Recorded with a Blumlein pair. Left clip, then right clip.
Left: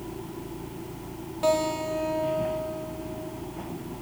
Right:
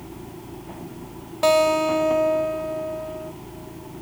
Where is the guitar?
25° right, 0.6 m.